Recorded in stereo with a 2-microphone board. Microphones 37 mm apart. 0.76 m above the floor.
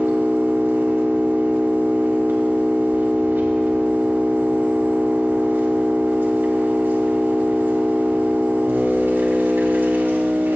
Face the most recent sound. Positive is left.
turn(degrees=-70)  # may be behind; listen again after turning